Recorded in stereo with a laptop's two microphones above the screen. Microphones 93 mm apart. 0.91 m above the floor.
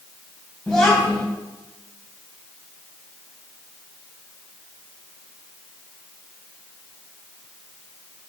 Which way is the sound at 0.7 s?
Centre (ahead or behind).